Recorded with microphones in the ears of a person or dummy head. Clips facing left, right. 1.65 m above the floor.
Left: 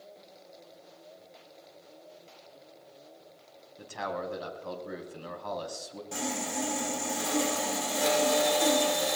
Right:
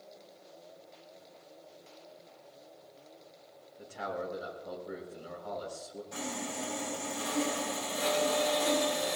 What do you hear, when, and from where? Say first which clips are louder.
3.8 s a man speaking: left 2 dB; 90° left, 3.5 m
6.1 s sawing: left 5 dB; 70° left (ahead or behind), 5.5 m